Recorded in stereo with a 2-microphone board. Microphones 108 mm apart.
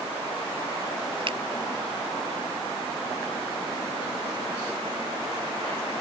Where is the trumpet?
I don't hear a trumpet.